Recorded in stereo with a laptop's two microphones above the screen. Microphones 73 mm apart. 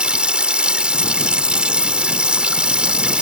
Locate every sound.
0.0 s running water: 15° right (ahead or behind)